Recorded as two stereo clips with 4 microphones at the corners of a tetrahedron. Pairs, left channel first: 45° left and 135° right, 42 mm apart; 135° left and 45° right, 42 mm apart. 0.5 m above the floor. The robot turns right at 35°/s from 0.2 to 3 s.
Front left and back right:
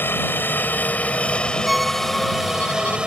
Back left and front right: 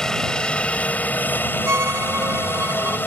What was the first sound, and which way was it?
A helicopter, 60° left.